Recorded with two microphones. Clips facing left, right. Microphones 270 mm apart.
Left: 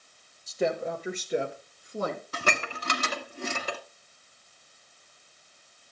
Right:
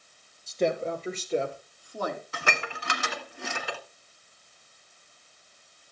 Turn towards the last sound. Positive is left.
turn(degrees=45)  # may be behind; listen again after turning